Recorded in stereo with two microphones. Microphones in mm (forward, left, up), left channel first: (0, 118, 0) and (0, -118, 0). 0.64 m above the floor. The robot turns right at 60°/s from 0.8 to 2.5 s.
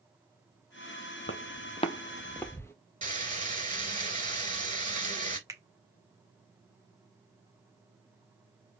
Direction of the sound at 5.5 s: 15° right (ahead or behind).